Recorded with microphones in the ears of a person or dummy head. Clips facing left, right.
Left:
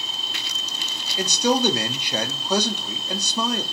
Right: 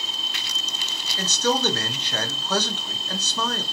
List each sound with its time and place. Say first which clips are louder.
1.2 s a man speaking: left 3 dB; 10° left (ahead or behind), 0.5 m